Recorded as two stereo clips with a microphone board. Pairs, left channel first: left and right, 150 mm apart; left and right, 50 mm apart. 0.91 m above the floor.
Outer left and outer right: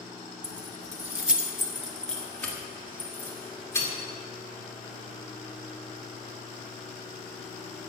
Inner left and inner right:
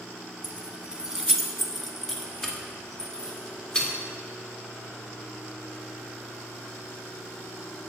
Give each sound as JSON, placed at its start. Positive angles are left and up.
{"t": 0.4, "sound": "keys jangling", "side_deg": -35, "distance_m": 0.7}